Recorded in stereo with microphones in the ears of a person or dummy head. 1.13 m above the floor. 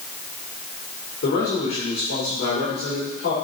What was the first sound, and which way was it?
A man speaking, 65° left (ahead or behind).